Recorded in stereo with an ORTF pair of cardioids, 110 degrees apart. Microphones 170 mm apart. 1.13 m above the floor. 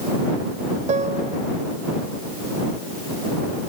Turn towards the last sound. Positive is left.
turn(degrees=-45)